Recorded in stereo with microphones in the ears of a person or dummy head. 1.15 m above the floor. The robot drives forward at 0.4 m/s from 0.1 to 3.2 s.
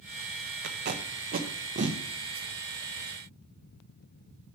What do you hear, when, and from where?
0.6 s tape being pulled: 55° right (ahead or behind), 0.8 m; by 2.0 s 35° right (ahead or behind), 1.1 m